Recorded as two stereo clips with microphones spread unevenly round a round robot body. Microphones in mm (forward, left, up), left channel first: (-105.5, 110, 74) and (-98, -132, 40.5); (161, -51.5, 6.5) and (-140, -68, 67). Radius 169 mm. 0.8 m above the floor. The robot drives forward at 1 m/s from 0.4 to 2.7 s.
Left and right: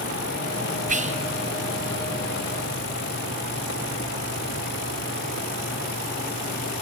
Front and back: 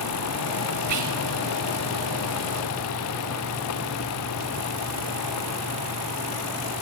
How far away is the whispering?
About 1.9 m.